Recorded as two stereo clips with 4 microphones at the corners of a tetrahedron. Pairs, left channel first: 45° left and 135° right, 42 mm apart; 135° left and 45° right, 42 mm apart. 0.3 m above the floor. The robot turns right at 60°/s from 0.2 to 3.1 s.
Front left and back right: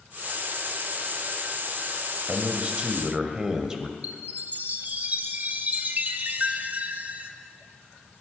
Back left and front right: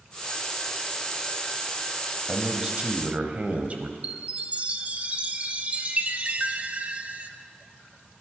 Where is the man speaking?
120° right, 1.2 m; by 3.9 s 70° right, 1.2 m.